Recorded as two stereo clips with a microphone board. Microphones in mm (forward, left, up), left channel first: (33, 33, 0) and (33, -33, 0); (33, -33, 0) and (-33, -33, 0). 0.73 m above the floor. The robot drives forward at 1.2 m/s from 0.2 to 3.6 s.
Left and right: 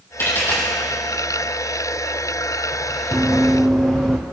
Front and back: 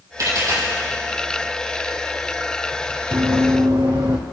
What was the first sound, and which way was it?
A dropped coin, 140° left.